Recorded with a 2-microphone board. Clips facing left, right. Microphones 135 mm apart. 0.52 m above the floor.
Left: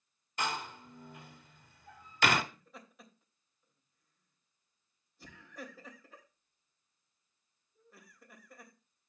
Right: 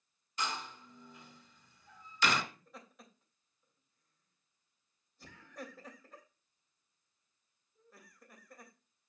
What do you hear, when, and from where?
0.4 s a door slam: 55° left (ahead or behind), 1.2 m
2.5 s laughter: centre (ahead or behind), 3 m